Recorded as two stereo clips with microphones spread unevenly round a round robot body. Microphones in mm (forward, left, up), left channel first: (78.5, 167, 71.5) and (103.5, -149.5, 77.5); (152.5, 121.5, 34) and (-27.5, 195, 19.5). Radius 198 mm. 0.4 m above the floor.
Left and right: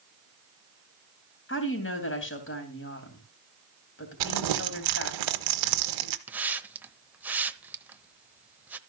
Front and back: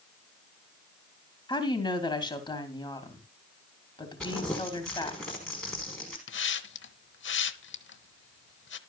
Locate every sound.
1.5 s a woman speaking: 45° left, 3 m
4.2 s crumpling: 110° right, 1.1 m
6.3 s a hiss: straight ahead, 0.9 m